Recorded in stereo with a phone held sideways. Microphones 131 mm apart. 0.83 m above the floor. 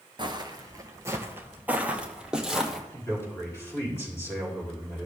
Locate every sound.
0.2 s footsteps: 35° right (ahead or behind), 1.0 m; by 2.8 s centre (ahead or behind), 1.8 m
2.9 s a man speaking: 20° left (ahead or behind), 4 m